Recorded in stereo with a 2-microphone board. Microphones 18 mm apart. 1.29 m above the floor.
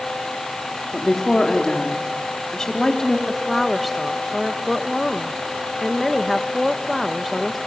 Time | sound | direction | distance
0.9 | a woman speaking | 30° left (ahead or behind) | 3.5 m
3.3 | a woman speaking | centre (ahead or behind) | 1.4 m